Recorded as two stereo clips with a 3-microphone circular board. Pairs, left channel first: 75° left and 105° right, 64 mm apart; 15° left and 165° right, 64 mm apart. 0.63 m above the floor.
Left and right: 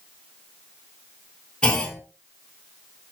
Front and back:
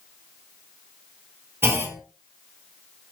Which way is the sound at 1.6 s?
150° left.